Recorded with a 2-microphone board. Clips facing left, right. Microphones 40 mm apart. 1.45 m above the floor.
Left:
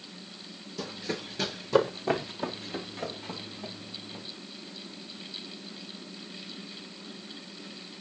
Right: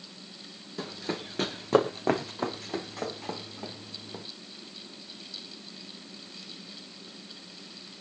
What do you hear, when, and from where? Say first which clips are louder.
0.8 s running footsteps: right 1 dB; 30° right (ahead or behind), 3.5 m; by 4.2 s 75° right (ahead or behind), 5 m